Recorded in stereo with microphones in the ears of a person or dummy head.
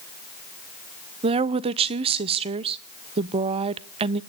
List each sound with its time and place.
1.2 s a woman speaking: 30° right (ahead or behind), 0.7 m